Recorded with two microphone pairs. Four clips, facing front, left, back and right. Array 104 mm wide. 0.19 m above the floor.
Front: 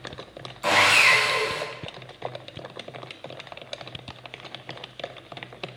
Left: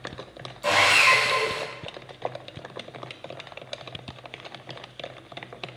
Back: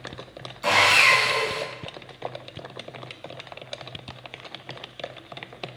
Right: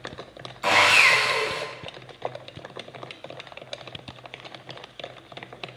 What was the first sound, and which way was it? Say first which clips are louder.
Sawing: right 1 dB, even; 90° right.